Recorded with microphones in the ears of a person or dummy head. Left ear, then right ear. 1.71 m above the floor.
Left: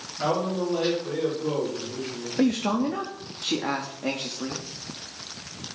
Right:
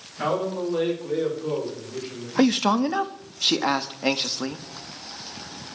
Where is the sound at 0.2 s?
25° right (ahead or behind), 4.5 m; by 2.3 s 5° left (ahead or behind), 4.5 m.